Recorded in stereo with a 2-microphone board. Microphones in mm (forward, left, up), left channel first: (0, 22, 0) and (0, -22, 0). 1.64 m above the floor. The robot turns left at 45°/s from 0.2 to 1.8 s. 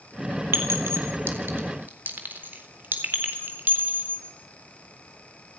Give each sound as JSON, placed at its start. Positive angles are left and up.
{"t": 0.5, "sound": "a clink", "side_deg": -75, "distance_m": 3.5}